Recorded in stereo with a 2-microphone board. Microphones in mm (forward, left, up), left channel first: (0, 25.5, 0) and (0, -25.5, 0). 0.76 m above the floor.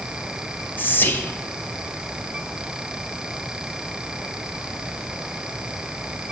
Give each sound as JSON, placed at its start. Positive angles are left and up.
{"t": 0.8, "sound": "whispering", "side_deg": 40, "distance_m": 0.8}